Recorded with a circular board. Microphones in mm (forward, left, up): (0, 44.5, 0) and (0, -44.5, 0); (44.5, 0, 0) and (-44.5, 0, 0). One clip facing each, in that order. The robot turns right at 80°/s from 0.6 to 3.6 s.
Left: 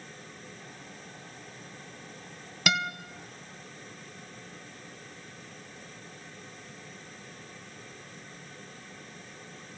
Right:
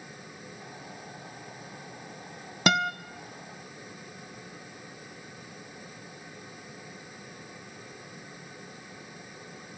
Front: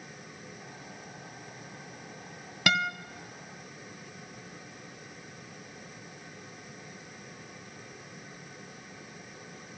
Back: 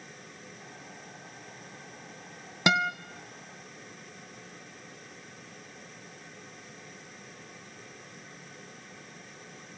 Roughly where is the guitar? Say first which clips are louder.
Right 5 dB, back 3 dB; behind right.